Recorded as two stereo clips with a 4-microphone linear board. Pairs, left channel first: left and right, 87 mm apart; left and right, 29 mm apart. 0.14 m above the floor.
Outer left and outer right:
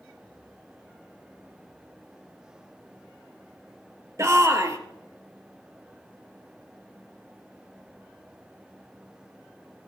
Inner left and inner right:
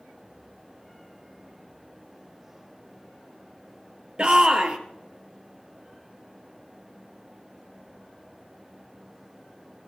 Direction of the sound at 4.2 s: 35° right (ahead or behind).